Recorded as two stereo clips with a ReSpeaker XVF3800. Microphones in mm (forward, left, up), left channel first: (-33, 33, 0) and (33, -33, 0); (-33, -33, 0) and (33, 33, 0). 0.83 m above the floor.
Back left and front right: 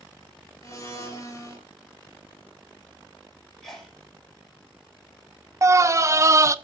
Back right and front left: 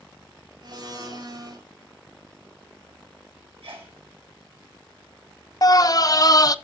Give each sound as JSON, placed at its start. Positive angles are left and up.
{"t": 0.6, "sound": "a blender", "azimuth_deg": 80, "distance_m": 3.0}
{"t": 3.6, "sound": "a sneeze", "azimuth_deg": 45, "distance_m": 3.5}
{"t": 5.6, "sound": "a scream", "azimuth_deg": -95, "distance_m": 0.6}